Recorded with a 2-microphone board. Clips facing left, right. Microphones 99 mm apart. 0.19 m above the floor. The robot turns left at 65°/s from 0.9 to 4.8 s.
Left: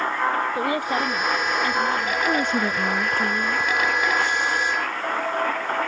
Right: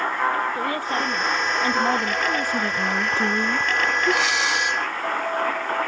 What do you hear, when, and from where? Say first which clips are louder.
0.6 s a woman speaking: left 2 dB; 15° left; by 2.1 s 65° right
2.2 s a woman speaking: left 2 dB; 45° left; by 3.7 s 50° right
4.1 s breathing: right 1 dB; 70° right; by 4.8 s 120° right